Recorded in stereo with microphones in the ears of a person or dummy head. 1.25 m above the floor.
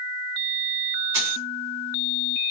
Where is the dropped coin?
25° right (ahead or behind), 1.3 m.